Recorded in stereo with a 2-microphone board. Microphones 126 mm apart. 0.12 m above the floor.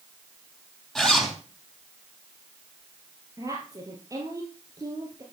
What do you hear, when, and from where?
0.9 s a zipper: 5° left (ahead or behind), 4 m
3.4 s a woman speaking: 25° right (ahead or behind), 3 m